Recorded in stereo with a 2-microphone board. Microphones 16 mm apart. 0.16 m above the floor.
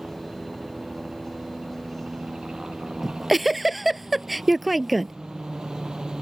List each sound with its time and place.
0.0 s a helicopter: 65° right (ahead or behind)
3.0 s a giggle: 10° right (ahead or behind)